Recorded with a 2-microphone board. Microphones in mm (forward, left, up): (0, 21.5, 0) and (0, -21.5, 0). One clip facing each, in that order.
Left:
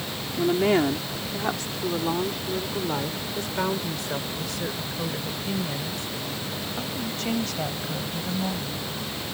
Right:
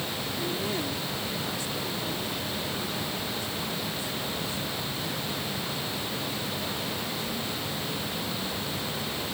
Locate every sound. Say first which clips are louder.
0.4 s a woman speaking: left 12 dB; 50° left (ahead or behind); by 8.8 s 85° left